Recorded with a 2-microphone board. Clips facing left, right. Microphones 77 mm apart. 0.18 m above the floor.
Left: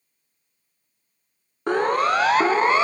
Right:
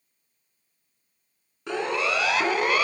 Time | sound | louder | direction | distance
1.7 | a siren | left 7 dB | 50° left (ahead or behind) | 2.5 m